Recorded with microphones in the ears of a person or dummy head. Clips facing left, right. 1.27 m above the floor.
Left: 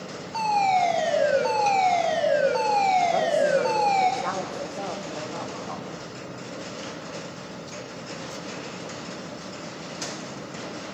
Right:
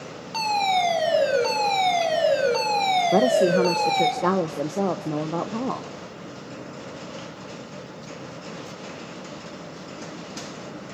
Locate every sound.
0.3 s a fire alarm: 60° right (ahead or behind), 5.5 m
3.1 s a woman speaking: 60° right (ahead or behind), 0.8 m